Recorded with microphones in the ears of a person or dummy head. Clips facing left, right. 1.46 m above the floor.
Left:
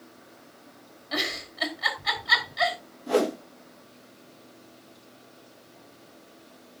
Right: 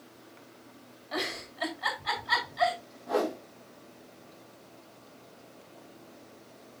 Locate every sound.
1.1 s a giggle: 35° left (ahead or behind), 4 m
3.1 s a whoosh: 35° left (ahead or behind), 1.2 m